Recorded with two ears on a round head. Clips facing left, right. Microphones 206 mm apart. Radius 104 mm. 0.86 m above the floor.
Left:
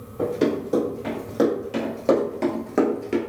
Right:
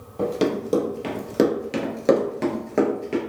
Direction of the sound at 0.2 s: 55° right (ahead or behind).